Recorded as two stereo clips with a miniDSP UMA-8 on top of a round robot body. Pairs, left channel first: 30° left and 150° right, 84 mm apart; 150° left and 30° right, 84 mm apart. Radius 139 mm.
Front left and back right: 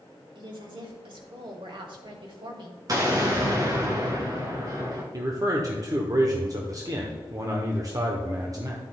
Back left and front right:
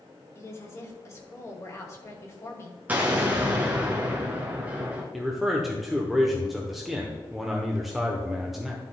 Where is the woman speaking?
155° right, 2.5 m.